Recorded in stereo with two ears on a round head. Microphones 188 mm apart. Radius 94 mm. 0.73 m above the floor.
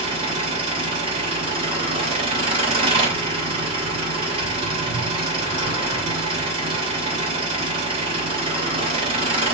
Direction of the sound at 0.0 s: 30° right (ahead or behind).